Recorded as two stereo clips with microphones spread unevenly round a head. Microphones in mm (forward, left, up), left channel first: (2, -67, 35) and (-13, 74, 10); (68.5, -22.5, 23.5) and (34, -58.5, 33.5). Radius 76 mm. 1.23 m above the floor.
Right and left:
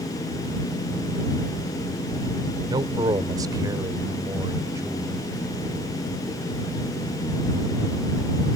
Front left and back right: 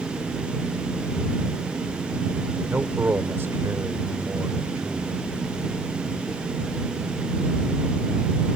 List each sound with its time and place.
2.7 s a man speaking: 155° left; by 5.2 s 165° left